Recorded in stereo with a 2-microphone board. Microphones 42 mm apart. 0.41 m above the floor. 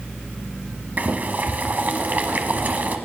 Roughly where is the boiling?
Right.